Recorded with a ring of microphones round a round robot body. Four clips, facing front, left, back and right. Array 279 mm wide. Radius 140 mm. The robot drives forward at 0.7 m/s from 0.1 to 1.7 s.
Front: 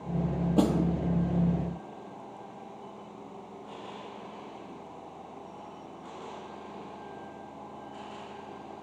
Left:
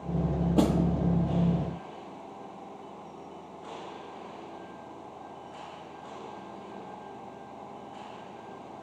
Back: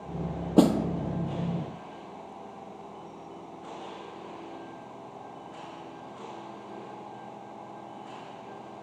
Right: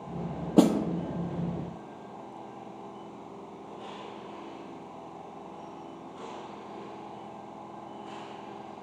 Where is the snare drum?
135° right, 0.7 m; by 0.8 s 150° right, 0.8 m.